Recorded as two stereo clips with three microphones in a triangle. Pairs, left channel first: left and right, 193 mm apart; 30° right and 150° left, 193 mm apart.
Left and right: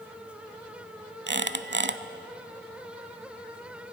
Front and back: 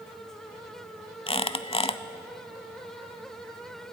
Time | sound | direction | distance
1.3 | a squeak | 90° right | 0.7 m